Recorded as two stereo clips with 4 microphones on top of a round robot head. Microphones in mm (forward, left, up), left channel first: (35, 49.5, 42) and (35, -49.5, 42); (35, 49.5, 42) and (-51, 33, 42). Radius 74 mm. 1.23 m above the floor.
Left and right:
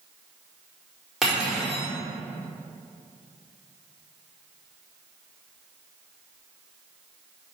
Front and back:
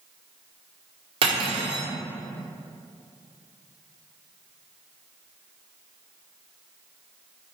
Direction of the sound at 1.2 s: 175° right.